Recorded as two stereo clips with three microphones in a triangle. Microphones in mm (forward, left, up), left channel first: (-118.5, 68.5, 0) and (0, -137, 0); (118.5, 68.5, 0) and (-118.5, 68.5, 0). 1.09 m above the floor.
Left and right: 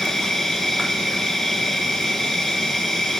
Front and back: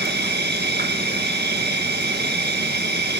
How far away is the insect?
About 1.7 m.